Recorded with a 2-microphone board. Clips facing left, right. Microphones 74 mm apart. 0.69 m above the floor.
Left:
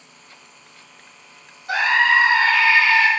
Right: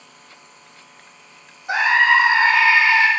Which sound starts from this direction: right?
A scream, at 1.7 s.